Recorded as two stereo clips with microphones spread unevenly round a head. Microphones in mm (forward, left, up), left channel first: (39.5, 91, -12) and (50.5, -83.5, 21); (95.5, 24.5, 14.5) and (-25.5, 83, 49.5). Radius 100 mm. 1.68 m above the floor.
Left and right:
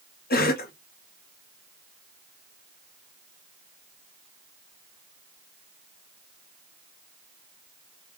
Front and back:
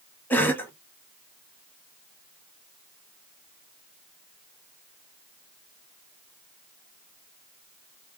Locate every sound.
0.3 s a cough: 55° left, 1.4 m